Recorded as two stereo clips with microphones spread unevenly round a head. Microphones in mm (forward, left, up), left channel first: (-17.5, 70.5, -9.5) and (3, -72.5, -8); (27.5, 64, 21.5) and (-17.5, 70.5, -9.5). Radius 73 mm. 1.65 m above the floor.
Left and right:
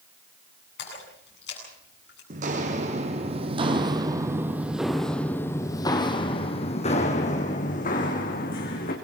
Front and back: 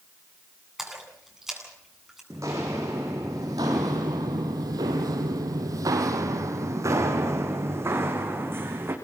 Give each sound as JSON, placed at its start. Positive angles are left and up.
{"t": 0.8, "sound": "a splash", "azimuth_deg": 85, "distance_m": 9.0}
{"t": 2.3, "sound": "footsteps", "azimuth_deg": -110, "distance_m": 3.5}